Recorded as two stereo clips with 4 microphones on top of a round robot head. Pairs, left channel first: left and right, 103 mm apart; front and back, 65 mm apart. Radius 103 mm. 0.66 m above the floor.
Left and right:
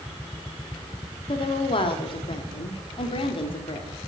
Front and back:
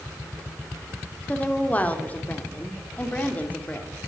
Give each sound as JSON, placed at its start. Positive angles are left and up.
{"t": 1.3, "sound": "a woman speaking", "azimuth_deg": 60, "distance_m": 2.5}